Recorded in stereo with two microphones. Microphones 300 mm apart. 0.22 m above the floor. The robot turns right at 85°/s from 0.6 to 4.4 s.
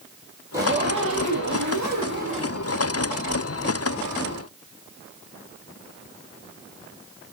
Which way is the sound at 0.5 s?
170° right.